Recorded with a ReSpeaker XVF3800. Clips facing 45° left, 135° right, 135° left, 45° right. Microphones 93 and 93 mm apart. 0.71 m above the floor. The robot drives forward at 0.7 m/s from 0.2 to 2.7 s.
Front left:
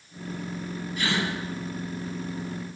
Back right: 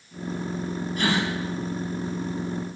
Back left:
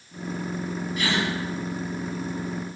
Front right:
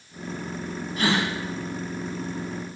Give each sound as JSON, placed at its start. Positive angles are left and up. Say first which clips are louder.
{"t": 1.0, "sound": "a gasp", "louder": "back right 3 dB, front right 3 dB", "azimuth_deg": -95, "distance_m": 2.0}